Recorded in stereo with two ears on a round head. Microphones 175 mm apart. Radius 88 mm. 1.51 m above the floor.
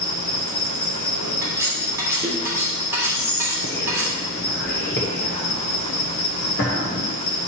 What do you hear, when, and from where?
0.0 s an insect: 80° left, 1.8 m
1.4 s cutlery clinking: 15° right (ahead or behind), 2 m
3.1 s whispering: 50° left (ahead or behind), 1.1 m